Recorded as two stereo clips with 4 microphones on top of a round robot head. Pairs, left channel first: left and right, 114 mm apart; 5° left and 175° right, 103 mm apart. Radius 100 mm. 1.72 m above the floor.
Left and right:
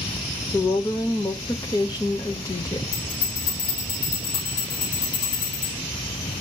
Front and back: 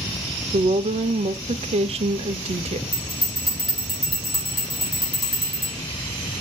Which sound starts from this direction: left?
A bell, at 2.9 s.